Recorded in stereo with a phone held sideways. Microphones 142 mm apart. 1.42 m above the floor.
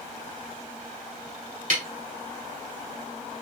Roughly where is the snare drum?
Right.